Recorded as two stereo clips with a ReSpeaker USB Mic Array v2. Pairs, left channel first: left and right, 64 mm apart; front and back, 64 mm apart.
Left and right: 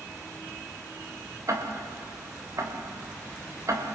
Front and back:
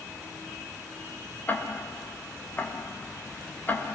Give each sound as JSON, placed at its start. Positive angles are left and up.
{"t": 1.5, "sound": "ticking", "azimuth_deg": -60, "distance_m": 3.0}